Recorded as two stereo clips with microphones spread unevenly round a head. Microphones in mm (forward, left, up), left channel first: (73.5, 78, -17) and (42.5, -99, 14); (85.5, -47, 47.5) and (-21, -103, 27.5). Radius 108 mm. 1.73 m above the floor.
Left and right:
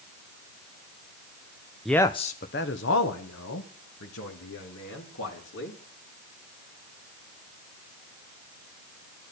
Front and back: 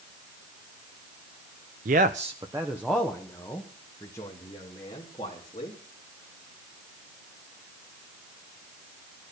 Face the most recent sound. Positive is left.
turn(degrees=95)